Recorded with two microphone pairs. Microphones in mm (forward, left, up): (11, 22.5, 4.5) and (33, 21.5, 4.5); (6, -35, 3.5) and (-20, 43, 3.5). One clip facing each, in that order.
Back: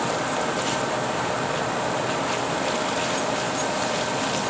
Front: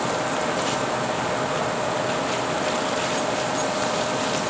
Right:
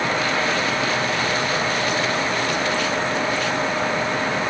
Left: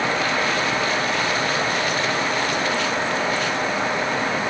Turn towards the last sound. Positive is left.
No sound to turn to.